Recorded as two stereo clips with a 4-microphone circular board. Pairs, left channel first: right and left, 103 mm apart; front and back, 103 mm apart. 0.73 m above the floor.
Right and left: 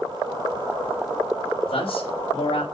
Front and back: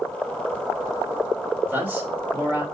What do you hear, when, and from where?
1.7 s a man speaking: 110° right, 3 m